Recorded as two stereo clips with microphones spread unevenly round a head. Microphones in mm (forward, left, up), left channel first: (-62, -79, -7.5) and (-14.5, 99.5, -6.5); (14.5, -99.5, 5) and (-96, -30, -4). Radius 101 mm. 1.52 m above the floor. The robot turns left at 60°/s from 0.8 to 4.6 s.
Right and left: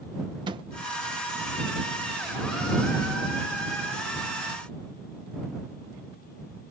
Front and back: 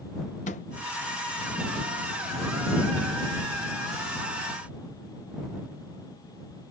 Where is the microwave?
10° left.